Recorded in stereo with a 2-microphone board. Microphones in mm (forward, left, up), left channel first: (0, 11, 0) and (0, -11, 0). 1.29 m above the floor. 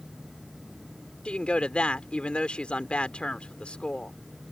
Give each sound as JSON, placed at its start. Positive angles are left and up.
{"t": 1.2, "sound": "a woman speaking", "side_deg": 55}